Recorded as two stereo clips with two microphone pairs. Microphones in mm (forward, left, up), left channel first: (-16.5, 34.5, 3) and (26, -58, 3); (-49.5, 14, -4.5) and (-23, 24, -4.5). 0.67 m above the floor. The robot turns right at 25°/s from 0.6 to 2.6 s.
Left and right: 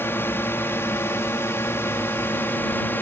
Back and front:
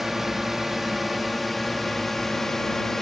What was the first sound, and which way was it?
A drone, 90° left.